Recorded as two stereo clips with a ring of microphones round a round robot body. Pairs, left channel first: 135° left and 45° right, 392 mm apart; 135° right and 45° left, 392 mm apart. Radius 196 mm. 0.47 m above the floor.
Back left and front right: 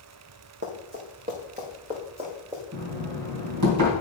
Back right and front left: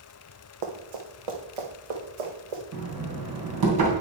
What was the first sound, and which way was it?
Running footsteps, 20° left.